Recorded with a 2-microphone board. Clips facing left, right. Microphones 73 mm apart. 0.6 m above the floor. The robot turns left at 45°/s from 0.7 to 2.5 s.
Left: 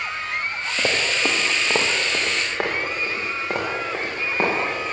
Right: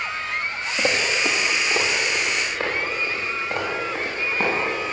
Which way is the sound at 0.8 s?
Centre (ahead or behind).